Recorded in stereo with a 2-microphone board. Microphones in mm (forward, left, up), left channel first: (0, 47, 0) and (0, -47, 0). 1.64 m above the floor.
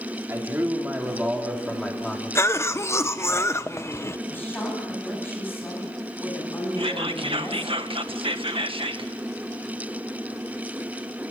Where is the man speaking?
25° right (ahead or behind), 4 m; by 3.0 s 20° left (ahead or behind), 4 m.